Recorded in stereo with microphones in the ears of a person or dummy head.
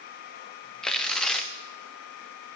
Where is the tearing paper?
10° left (ahead or behind), 0.7 m.